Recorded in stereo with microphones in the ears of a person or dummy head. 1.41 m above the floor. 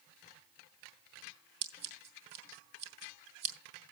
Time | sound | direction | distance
1.6 | scissors | 65° right (ahead or behind) | 2.5 m